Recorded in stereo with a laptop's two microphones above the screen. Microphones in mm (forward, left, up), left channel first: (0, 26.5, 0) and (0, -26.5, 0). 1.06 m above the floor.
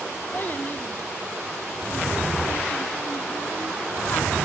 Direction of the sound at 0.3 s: 35° left (ahead or behind).